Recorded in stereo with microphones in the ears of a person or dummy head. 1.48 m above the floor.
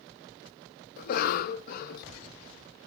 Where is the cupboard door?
No cupboard door in this recording.